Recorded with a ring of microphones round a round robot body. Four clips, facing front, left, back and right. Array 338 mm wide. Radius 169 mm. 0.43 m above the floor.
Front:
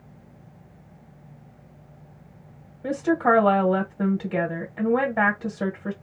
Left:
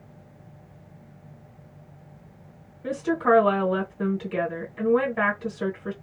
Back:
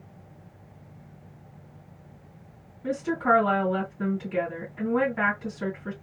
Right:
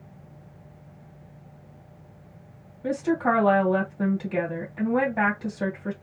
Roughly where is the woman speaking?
Ahead.